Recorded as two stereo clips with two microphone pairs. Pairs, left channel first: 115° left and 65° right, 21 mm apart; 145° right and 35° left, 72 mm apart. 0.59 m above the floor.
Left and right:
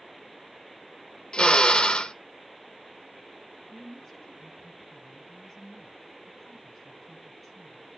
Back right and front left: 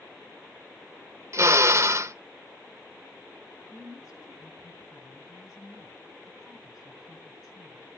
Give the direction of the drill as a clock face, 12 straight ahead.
9 o'clock.